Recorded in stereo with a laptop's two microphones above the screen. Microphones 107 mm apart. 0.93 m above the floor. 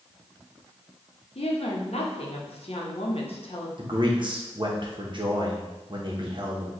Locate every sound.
1.4 s a woman speaking: 60° left (ahead or behind), 1.0 m
3.8 s a man speaking: 45° right (ahead or behind), 0.9 m